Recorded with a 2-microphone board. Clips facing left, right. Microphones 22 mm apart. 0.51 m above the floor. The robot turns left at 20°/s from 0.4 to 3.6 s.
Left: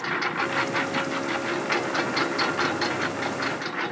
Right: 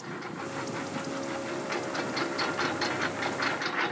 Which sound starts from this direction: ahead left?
A lawn mower, at 0.0 s.